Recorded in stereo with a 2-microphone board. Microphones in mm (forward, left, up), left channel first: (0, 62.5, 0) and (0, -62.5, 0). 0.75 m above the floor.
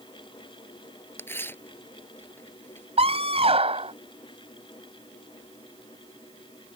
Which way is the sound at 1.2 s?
20° left (ahead or behind).